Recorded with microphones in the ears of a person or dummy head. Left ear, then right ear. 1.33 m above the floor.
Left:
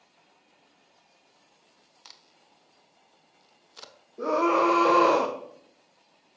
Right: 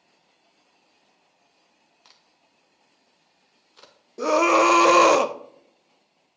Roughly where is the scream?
Right.